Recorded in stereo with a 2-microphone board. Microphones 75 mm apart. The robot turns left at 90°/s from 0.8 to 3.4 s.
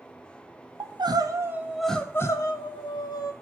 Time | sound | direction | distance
0.8 | crying | 90° right | 0.6 m